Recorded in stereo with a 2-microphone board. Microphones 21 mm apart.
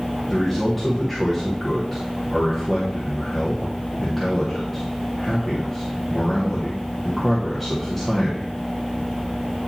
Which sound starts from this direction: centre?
A man speaking, at 0.3 s.